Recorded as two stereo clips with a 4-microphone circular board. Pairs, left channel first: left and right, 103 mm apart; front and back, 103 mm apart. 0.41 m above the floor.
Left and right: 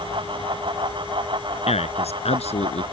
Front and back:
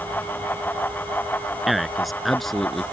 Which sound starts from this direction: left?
A man speaking, at 1.7 s.